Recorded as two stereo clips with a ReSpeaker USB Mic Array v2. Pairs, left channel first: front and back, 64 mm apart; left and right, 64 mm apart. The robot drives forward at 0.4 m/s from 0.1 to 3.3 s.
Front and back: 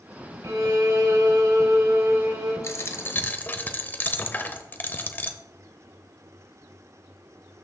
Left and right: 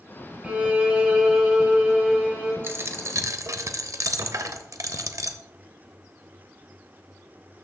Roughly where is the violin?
Behind right.